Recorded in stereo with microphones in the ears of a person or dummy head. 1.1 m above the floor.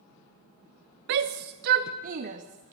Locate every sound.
1.1 s a shout: 60° right (ahead or behind), 0.6 m; by 2.7 s 40° right (ahead or behind), 1.6 m